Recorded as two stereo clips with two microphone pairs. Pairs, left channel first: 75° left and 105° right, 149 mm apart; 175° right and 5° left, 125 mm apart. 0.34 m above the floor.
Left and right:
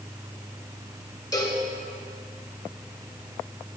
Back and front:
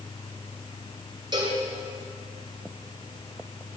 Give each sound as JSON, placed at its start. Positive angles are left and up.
{"t": 1.3, "sound": "a cowbell", "azimuth_deg": 30, "distance_m": 1.8}